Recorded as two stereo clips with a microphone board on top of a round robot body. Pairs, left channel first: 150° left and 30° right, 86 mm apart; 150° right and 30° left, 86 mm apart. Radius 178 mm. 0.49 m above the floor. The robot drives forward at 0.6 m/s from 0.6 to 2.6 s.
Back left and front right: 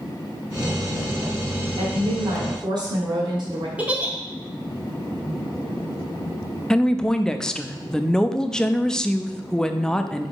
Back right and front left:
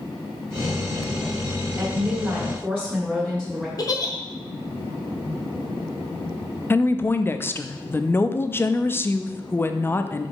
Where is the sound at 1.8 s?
35° right, 2 m; by 3.7 s 45° right, 1.7 m.